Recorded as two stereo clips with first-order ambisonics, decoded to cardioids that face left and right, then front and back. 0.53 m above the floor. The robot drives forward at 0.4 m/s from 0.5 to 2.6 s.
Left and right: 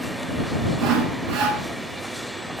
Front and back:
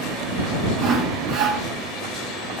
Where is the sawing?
135° right, 7 m; by 1.6 s 140° right, 7.5 m.